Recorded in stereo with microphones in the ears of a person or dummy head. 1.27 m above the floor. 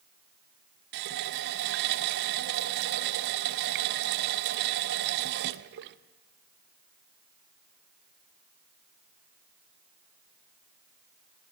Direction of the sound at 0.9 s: 55° right (ahead or behind).